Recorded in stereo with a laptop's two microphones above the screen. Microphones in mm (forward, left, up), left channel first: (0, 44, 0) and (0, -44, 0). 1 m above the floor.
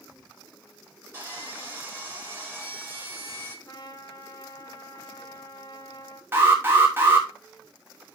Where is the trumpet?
50° left (ahead or behind), 1.2 m.